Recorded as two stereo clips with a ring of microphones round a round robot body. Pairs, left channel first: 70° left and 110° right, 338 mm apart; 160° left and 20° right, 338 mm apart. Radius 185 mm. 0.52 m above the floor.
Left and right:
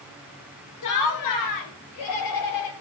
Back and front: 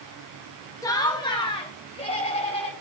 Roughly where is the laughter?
Left.